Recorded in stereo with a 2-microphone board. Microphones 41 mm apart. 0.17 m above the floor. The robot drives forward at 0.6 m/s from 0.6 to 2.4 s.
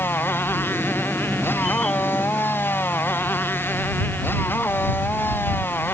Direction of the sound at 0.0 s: 60° left (ahead or behind).